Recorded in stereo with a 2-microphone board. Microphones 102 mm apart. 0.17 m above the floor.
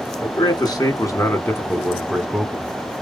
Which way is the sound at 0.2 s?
45° left (ahead or behind).